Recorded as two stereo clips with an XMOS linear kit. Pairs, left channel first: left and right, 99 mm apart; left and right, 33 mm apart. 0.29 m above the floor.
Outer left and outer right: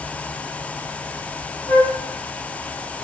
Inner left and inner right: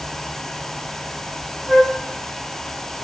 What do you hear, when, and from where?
1.7 s a flute: 40° left (ahead or behind), 7 m